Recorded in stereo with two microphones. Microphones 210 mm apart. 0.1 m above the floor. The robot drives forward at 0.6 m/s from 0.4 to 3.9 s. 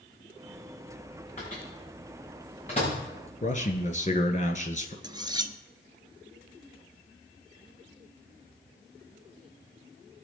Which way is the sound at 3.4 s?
35° left (ahead or behind).